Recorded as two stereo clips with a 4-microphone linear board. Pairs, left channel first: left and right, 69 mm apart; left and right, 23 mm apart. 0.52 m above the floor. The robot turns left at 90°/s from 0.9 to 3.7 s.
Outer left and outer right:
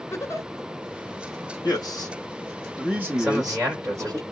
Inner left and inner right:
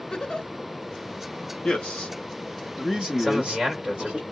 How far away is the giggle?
About 0.8 m.